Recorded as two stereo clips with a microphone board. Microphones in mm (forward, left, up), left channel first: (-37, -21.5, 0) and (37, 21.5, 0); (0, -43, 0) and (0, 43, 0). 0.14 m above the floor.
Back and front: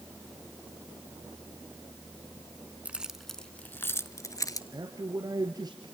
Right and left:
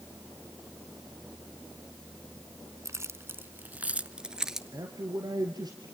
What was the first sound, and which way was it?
Keys jangling, 90° left.